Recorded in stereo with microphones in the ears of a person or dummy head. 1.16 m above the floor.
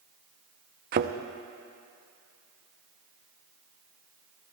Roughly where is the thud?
Right.